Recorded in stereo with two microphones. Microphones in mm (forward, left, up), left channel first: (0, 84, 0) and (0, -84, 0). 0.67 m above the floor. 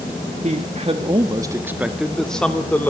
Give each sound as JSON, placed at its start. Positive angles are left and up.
{"t": 0.4, "sound": "a man speaking", "side_deg": -45, "distance_m": 1.7}